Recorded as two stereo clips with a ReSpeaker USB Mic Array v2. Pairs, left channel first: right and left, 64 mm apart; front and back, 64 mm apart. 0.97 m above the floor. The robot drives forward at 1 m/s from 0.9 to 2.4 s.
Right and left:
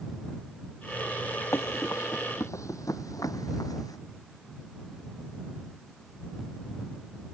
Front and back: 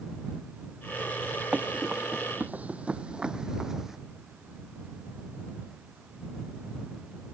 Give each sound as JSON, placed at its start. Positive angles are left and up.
{"t": 1.5, "sound": "running footsteps", "azimuth_deg": -115}